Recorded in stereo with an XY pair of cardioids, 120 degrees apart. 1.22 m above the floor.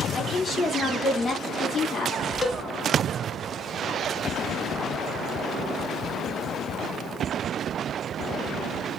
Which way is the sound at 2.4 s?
15° left.